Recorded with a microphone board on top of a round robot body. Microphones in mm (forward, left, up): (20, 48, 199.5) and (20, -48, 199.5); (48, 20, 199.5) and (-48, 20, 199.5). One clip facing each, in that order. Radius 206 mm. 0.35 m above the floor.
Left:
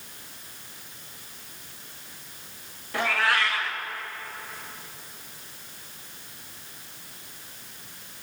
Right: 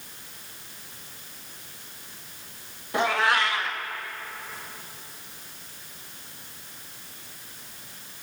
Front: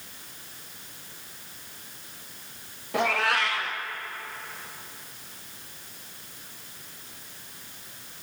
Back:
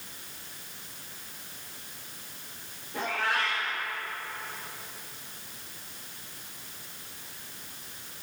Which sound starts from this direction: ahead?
A cat meowing, at 2.9 s.